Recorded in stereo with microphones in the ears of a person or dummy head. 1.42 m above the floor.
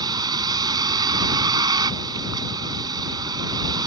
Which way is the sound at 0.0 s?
25° right (ahead or behind).